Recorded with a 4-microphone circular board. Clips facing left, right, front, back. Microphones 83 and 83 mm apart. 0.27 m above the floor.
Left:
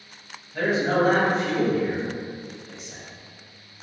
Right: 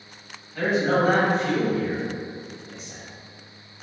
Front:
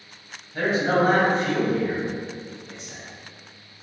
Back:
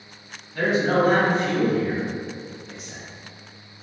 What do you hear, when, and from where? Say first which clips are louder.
0.5 s a man speaking: even, back 1 dB; 30° left, 1.5 m; by 3.0 s 40° right, 1.6 m